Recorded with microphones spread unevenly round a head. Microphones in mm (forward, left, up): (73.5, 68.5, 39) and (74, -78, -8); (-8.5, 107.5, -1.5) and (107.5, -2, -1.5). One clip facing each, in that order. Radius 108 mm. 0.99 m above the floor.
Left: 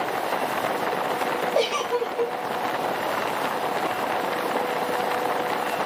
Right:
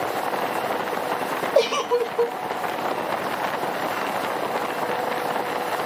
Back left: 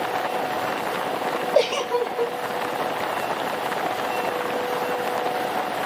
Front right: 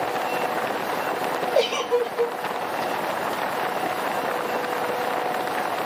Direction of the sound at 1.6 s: 165° right.